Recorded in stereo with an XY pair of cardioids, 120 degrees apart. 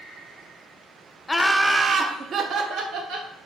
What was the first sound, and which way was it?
Laughter, 10° left.